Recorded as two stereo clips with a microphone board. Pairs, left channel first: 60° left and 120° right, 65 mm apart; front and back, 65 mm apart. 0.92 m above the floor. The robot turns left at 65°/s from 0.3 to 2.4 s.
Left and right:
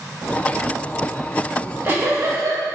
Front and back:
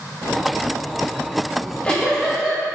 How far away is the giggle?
About 1.5 m.